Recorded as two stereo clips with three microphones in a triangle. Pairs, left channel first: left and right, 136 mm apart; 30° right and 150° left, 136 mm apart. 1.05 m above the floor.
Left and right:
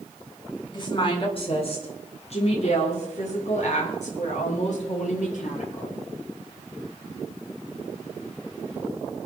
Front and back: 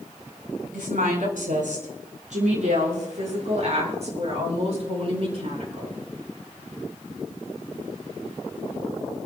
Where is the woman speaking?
145° left, 4.5 m; by 5.9 s 110° left, 10.5 m.